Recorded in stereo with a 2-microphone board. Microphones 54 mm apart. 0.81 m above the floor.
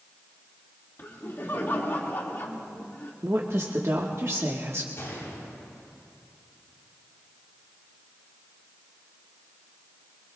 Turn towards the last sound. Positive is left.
turn(degrees=45)  # may be behind; listen again after turning